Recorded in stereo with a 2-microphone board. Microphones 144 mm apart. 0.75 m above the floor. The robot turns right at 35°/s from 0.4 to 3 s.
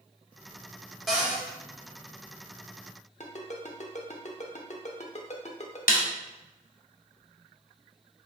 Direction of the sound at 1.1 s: Centre (ahead or behind).